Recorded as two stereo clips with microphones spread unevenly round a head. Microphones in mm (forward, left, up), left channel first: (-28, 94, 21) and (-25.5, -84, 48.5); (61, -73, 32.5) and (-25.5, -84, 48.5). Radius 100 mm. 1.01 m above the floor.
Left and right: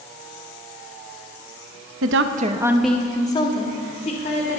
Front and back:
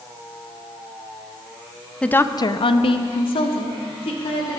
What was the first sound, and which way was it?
A woman speaking, 70° right.